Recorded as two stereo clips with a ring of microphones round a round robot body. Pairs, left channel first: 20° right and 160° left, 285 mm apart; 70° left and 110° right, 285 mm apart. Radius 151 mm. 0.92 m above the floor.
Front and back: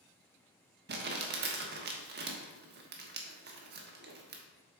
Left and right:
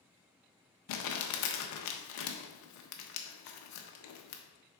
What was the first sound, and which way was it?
Crumpling, 100° left.